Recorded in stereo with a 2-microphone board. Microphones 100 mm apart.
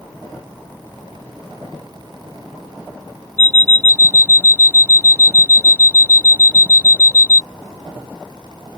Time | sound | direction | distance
3.4 | an alarm clock | 20° left (ahead or behind) | ?